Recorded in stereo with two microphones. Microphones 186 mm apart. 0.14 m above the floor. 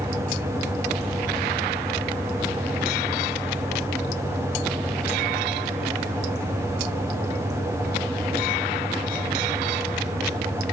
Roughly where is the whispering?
I don't hear whispering.